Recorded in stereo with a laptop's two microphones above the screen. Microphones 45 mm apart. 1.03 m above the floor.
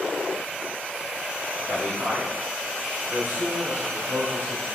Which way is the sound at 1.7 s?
65° right (ahead or behind).